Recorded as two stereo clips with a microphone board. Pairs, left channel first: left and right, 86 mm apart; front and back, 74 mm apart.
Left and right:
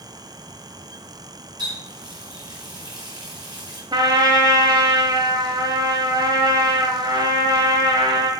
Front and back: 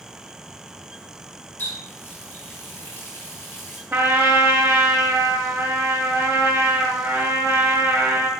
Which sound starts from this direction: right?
A trumpet, at 3.9 s.